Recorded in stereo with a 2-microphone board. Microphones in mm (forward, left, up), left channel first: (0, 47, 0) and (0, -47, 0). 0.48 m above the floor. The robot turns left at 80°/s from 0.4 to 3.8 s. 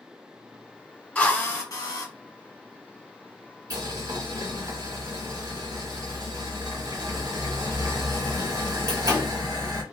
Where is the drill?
155° left, 1.1 m; by 2.1 s 80° left, 1.1 m.